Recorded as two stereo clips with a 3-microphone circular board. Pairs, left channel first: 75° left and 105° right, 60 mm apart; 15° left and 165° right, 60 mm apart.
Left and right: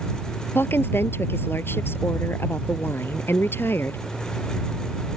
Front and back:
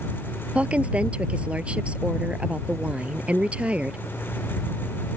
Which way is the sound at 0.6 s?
125° left.